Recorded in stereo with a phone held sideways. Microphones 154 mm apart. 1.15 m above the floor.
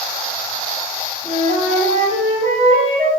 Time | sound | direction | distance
1.2 | a flute | 40° right (ahead or behind) | 5 m